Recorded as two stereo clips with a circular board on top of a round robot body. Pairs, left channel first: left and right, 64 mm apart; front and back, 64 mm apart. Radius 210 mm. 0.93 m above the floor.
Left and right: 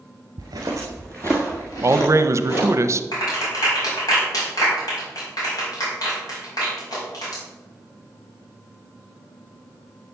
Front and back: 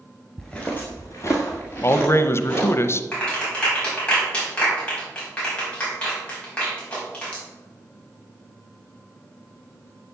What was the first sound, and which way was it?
Footsteps, 85° right.